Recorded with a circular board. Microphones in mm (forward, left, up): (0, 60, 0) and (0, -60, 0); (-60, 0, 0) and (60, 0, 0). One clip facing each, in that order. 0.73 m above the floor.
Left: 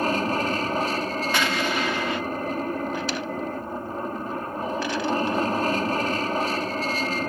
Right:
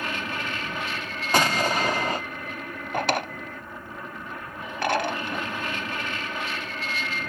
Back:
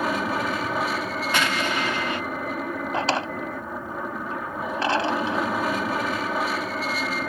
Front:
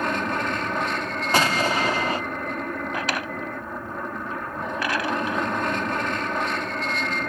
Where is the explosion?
50° right.